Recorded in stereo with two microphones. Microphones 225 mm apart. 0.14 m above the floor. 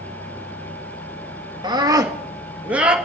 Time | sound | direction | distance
1.6 | a scream | 20° right (ahead or behind) | 1.6 m